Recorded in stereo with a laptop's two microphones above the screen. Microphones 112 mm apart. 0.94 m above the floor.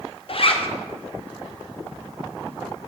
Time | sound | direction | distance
0.3 | a zipper | 55° left (ahead or behind) | 0.6 m